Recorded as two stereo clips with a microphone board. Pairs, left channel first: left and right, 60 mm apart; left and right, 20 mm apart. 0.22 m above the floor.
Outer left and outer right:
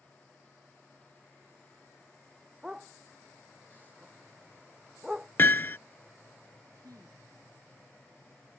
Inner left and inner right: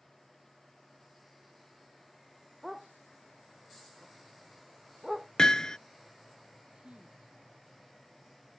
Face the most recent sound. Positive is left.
turn(degrees=-70)  # may be behind; listen again after turning